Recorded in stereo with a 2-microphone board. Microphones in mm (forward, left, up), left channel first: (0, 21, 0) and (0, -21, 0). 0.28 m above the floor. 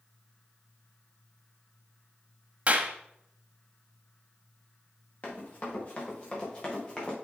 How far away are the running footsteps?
About 4 m.